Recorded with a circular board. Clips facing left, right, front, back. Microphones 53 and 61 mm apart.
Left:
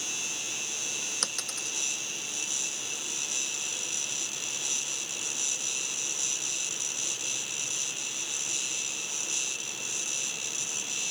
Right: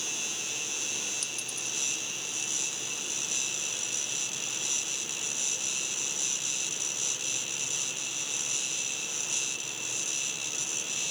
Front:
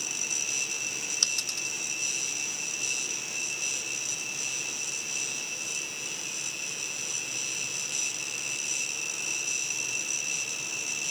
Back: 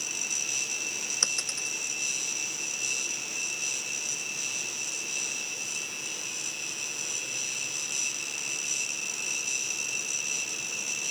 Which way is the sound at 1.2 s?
115° left.